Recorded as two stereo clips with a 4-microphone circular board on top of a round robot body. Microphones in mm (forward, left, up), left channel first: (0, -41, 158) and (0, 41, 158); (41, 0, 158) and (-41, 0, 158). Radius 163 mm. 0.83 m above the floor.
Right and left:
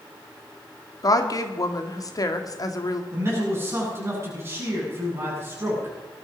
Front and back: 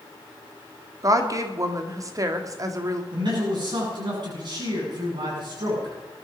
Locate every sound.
1.0 s a woman speaking: 135° right, 1.9 m
3.1 s a man speaking: 150° left, 8 m